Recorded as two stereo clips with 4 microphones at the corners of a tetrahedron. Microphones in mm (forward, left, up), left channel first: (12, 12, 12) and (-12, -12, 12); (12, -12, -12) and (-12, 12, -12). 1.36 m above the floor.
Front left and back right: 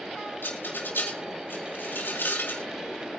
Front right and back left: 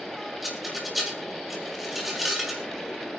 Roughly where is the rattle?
Ahead left.